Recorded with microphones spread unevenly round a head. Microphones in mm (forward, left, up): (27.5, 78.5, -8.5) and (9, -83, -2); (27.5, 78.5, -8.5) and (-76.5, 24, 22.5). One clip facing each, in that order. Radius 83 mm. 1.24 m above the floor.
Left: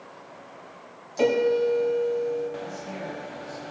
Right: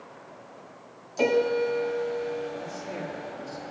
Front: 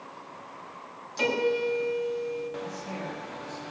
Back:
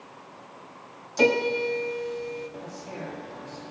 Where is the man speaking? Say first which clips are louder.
Even, front 2 dB; 75° right, 5.5 m.